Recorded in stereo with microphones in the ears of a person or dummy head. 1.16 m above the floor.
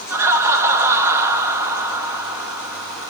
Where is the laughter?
10° right (ahead or behind), 1.7 m.